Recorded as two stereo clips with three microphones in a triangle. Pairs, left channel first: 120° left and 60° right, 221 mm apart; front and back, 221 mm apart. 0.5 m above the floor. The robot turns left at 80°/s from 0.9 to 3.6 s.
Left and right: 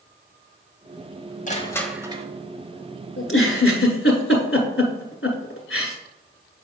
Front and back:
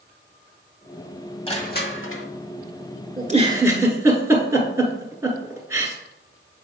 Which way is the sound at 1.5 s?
65° left.